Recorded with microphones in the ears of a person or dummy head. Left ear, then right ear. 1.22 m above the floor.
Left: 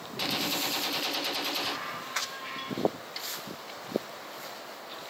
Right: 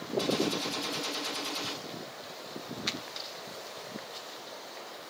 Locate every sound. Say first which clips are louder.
0.2 s a gunshot: left 1 dB; 10° left (ahead or behind), 0.9 m
3.2 s a snare drum: left 2 dB; 15° left (ahead or behind), 6 m